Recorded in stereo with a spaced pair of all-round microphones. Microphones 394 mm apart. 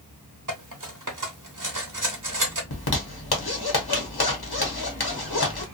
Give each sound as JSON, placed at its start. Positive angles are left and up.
{"t": 0.5, "sound": "cutlery clinking", "side_deg": -55, "distance_m": 0.9}
{"t": 2.7, "sound": "a zipper", "side_deg": 80, "distance_m": 0.9}